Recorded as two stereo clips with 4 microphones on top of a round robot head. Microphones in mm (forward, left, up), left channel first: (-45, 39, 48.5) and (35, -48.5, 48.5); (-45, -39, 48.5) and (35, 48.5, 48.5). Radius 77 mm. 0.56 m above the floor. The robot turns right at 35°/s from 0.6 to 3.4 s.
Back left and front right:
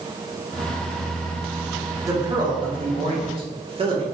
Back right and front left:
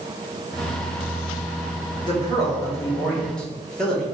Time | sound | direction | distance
2.0 | a man speaking | 100° right | 1.7 m